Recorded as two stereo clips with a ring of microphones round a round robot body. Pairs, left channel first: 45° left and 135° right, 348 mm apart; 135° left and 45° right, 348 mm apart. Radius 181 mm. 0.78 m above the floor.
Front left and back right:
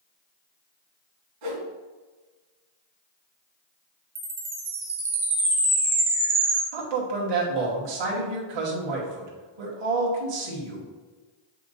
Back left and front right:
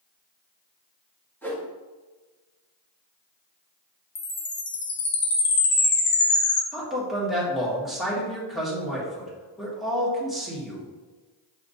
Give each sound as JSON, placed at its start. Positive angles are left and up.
{"t": 1.4, "sound": "a whoosh", "azimuth_deg": -140, "distance_m": 1.9}
{"t": 4.2, "sound": "a chime", "azimuth_deg": 160, "distance_m": 0.5}
{"t": 6.7, "sound": "a man speaking", "azimuth_deg": -135, "distance_m": 1.9}